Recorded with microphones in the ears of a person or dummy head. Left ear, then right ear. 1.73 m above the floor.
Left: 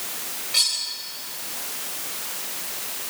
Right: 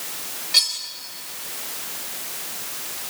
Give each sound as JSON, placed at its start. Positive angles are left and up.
{"t": 0.5, "sound": "cutlery clinking", "side_deg": -25, "distance_m": 5.0}